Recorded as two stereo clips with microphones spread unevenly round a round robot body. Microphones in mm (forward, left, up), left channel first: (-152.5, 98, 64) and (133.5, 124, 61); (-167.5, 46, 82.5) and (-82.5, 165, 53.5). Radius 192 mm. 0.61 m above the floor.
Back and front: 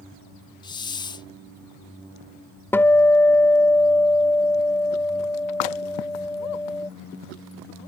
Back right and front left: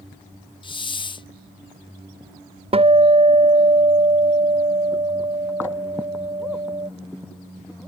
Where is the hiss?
130° right.